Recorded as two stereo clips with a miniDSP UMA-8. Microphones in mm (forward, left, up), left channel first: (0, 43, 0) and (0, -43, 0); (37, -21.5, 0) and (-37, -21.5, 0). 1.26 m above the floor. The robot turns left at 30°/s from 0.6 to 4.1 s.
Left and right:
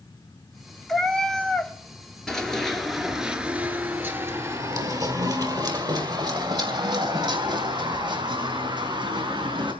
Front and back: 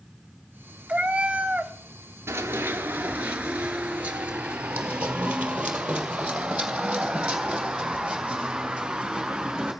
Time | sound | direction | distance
0.9 | a cat meowing | 165° left | 0.8 m
2.3 | running footsteps | 170° left | 1.4 m